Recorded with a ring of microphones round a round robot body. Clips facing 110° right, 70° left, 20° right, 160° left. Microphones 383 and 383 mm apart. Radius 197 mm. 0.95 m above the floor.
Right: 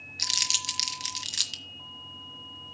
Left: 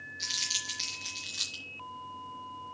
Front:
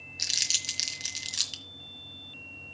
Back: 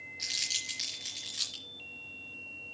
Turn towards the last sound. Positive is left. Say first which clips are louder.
# right 3 dB, front 3 dB
turn(degrees=-80)